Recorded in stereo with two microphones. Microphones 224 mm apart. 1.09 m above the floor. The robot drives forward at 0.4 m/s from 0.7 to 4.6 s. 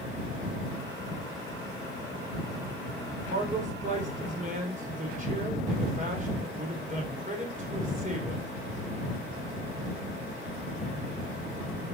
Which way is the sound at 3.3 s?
30° right (ahead or behind).